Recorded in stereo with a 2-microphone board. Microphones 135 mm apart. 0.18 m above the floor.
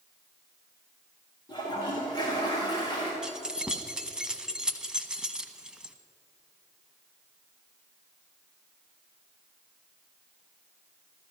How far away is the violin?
No violin in this recording.